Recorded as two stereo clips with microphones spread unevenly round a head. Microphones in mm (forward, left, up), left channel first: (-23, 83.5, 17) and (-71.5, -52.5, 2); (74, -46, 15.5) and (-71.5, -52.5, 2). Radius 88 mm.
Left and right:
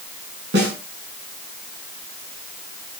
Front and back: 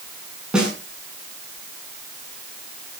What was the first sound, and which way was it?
A snare drum, 90° right.